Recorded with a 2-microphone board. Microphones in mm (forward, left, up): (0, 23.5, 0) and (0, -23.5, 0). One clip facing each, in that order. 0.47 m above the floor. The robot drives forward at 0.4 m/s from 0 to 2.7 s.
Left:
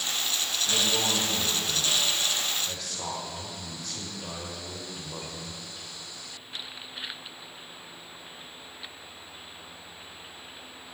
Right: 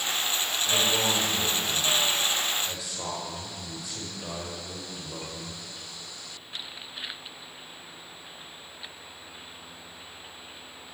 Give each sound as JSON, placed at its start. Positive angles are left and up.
{"t": 0.7, "sound": "a man speaking", "side_deg": -10, "distance_m": 2.0}